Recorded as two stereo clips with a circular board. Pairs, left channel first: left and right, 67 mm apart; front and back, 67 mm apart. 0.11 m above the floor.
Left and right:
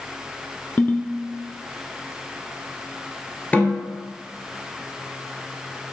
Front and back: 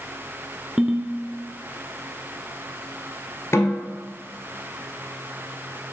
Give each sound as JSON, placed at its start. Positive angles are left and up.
{"t": 0.8, "sound": "a ringtone", "azimuth_deg": 110, "distance_m": 0.6}
{"t": 3.5, "sound": "a snare drum", "azimuth_deg": 30, "distance_m": 1.6}